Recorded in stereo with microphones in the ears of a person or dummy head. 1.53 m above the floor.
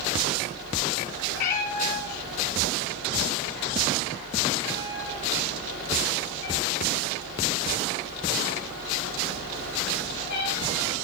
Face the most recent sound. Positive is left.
turn(degrees=60)  # may be behind; listen again after turning